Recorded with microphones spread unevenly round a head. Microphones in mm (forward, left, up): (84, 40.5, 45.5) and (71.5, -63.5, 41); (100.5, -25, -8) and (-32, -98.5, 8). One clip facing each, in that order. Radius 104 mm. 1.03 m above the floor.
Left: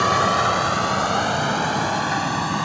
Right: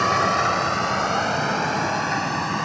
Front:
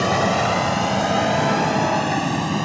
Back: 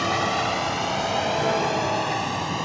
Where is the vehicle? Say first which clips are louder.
Left 1 dB, front 5 dB; straight ahead.